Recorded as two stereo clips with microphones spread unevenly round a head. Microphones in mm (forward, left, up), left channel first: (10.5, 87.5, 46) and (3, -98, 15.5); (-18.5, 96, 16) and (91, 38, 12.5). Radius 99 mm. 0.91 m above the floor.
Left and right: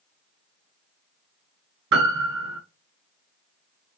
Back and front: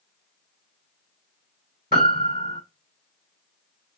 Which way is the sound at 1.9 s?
90° right.